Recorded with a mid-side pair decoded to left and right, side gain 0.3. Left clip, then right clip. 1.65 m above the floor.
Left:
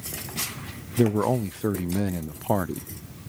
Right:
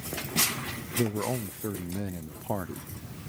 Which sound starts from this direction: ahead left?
A man speaking, at 1.0 s.